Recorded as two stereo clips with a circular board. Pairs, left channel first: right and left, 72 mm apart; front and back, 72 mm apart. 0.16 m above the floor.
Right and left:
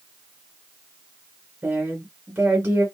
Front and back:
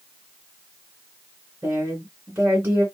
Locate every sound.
1.6 s a woman speaking: 125° left, 2 m